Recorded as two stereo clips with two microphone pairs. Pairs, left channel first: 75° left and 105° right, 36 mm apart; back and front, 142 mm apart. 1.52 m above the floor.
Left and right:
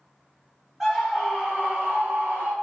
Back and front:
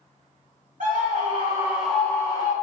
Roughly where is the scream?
Ahead right.